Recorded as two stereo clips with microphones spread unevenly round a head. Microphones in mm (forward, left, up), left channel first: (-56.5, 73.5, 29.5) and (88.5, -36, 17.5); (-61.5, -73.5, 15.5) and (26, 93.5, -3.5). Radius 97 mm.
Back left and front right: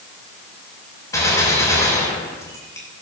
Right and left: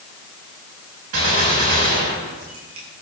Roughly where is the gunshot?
Left.